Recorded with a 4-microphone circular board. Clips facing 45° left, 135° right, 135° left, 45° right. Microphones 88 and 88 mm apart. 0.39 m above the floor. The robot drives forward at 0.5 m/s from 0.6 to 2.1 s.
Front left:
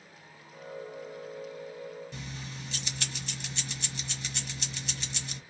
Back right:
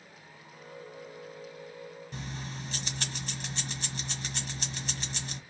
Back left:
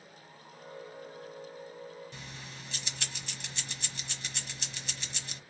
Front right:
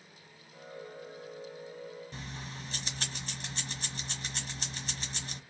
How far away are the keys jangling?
About 1.4 m.